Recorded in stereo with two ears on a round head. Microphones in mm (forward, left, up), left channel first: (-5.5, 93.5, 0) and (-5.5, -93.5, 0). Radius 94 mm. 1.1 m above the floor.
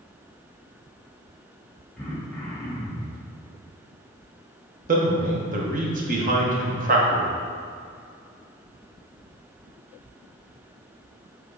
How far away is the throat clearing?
About 2 m.